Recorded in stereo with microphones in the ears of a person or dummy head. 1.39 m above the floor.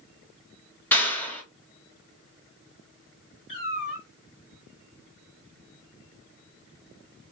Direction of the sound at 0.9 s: 10° left (ahead or behind).